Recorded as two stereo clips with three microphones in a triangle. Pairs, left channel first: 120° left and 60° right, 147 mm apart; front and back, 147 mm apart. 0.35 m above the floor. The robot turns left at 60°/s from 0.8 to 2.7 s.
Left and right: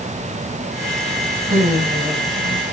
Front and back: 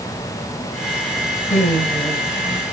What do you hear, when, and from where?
1.5 s laughter: 30° right, 3.5 m; by 2.7 s 100° right, 3.5 m